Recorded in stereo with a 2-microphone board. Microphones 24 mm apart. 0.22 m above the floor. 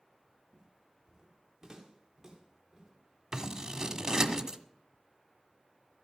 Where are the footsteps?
30° right (ahead or behind), 2.5 m; by 4.1 s 20° right (ahead or behind), 6.5 m.